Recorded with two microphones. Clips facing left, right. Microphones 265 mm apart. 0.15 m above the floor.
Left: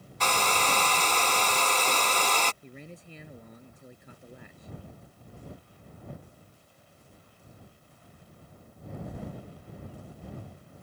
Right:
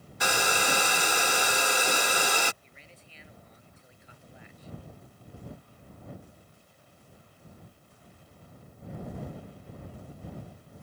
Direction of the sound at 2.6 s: 55° left (ahead or behind).